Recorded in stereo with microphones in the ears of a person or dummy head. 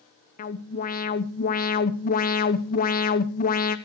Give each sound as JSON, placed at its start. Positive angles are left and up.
{"t": 0.4, "sound": "an alarm", "side_deg": 45, "distance_m": 0.9}